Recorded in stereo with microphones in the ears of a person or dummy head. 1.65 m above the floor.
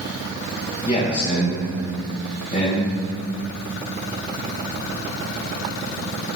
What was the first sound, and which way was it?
A man speaking, 30° left (ahead or behind).